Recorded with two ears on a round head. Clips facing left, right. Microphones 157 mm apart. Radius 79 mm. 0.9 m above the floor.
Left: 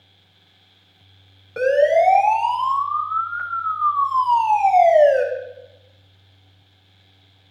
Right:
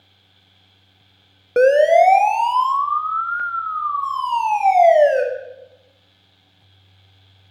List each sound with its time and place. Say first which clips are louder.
1.6 s a siren: right 4 dB; 60° right (ahead or behind), 2 m; by 5.2 s 25° right (ahead or behind), 3 m